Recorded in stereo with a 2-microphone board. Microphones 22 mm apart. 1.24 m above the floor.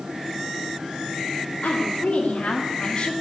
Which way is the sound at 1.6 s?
80° left.